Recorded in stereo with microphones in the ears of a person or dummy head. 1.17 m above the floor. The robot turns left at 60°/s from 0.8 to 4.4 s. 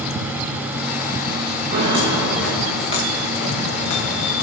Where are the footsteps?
45° right (ahead or behind), 4.5 m; by 4.5 s 60° left (ahead or behind), 6 m.